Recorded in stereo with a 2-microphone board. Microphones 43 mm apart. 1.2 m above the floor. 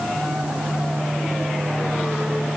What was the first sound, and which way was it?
Only background noise.